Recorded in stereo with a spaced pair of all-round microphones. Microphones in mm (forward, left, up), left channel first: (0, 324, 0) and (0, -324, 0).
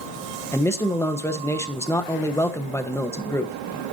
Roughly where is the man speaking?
Centre.